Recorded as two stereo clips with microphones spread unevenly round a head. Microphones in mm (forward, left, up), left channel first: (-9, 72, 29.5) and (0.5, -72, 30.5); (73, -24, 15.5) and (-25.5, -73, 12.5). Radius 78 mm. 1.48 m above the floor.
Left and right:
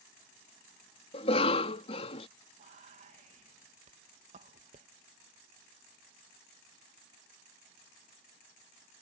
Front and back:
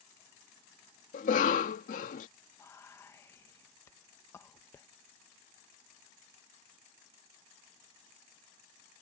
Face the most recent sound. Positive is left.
turn(degrees=-40)